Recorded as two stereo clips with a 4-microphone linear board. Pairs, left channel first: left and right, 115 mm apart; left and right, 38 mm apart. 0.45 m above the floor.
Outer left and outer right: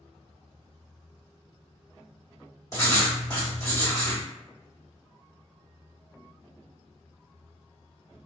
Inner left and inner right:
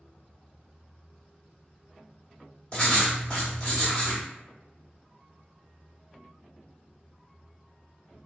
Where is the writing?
25° left (ahead or behind), 1.7 m.